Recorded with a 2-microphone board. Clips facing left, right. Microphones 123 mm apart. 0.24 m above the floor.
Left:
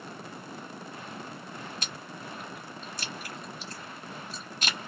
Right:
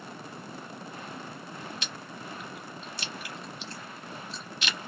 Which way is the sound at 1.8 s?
40° left (ahead or behind).